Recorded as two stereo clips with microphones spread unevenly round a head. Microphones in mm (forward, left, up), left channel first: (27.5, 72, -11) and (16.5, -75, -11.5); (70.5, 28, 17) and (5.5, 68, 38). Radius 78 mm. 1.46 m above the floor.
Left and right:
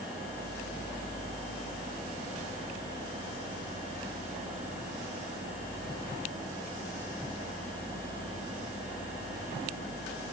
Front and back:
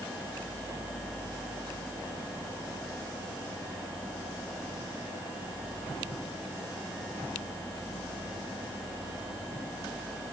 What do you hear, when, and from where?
Only background noise.